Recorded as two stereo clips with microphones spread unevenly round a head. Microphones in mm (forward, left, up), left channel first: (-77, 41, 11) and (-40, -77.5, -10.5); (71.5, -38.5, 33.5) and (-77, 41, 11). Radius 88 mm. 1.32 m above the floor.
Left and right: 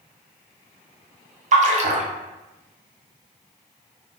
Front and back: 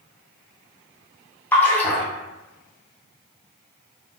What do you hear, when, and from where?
1.5 s a splash: 105° right, 0.6 m